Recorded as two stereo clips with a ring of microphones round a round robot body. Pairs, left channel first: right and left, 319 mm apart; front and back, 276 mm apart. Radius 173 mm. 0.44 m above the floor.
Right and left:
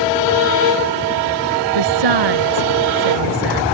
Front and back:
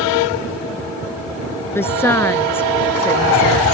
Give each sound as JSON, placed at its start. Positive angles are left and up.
{"t": 1.8, "sound": "a woman speaking", "azimuth_deg": 80}